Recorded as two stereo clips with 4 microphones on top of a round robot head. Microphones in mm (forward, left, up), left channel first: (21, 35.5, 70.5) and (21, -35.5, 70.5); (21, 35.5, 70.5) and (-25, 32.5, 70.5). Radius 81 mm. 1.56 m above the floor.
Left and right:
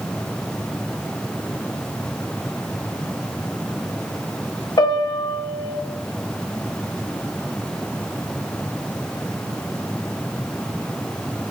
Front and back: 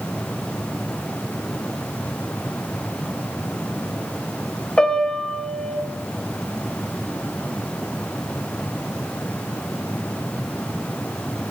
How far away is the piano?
About 1.5 m.